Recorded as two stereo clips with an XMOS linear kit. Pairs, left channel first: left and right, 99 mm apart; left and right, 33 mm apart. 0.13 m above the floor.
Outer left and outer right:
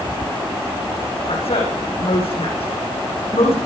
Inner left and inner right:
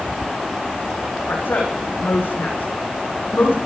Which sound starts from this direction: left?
A woman speaking, at 1.3 s.